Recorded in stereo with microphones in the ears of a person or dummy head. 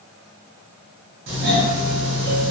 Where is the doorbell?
60° right (ahead or behind), 2 m.